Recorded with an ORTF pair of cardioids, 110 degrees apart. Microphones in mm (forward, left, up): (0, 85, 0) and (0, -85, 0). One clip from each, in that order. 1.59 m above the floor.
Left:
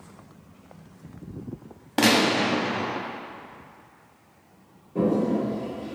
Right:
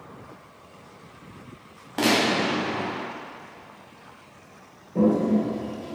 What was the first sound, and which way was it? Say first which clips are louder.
A gunshot: left 1 dB; 25° left.